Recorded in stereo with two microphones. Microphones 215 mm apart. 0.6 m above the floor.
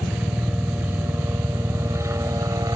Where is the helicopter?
5° right (ahead or behind); by 2.8 s 15° right (ahead or behind).